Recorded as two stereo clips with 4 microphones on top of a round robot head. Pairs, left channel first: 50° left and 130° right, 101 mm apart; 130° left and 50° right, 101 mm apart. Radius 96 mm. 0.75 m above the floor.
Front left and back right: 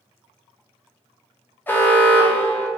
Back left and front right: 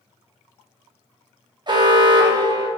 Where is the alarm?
15° right, 0.7 m.